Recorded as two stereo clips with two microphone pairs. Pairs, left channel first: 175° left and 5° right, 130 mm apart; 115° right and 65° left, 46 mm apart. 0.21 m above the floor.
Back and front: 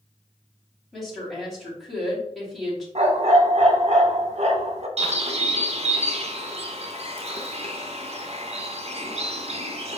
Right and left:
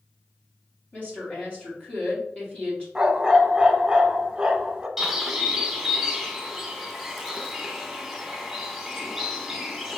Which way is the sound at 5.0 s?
20° right.